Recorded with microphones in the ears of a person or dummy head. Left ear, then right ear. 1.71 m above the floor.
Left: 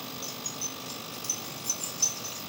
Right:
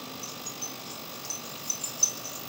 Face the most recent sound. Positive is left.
turn(degrees=30)  # may be behind; listen again after turning